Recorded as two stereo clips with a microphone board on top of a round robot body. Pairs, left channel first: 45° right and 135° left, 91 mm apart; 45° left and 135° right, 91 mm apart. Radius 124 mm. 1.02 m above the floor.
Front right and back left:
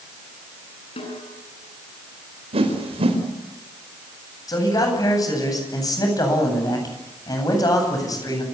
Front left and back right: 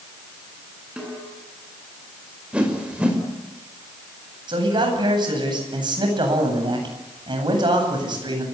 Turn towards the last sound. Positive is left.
turn(degrees=-95)